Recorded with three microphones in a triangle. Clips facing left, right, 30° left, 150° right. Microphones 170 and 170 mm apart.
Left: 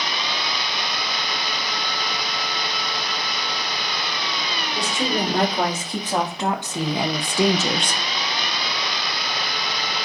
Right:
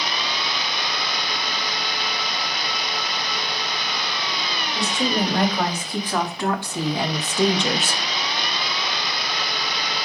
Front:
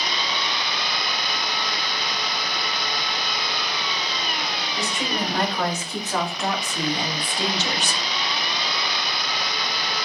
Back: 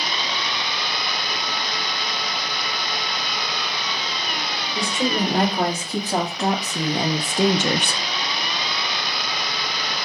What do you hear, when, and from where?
4.8 s a woman speaking: 155° left, 3.5 m; by 8.0 s 165° right, 0.5 m